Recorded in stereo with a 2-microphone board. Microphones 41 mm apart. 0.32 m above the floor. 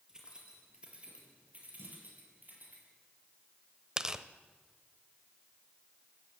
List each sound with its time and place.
0.1 s keys jangling: 15° right (ahead or behind), 5 m; by 2.8 s 45° right (ahead or behind), 6.5 m
1.8 s a clunk: 60° right (ahead or behind), 6.5 m
4.0 s tearing paper: 15° right (ahead or behind), 0.8 m